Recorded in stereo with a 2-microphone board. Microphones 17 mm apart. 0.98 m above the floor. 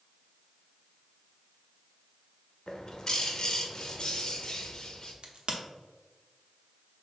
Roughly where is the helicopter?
I don't hear a helicopter.